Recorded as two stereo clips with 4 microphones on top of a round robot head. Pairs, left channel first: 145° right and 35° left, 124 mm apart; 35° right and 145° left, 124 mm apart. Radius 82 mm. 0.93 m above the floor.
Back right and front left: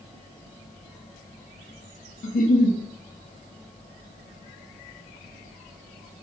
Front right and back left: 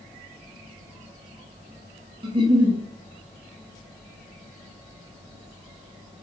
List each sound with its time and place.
2.2 s a giggle: 160° right, 0.7 m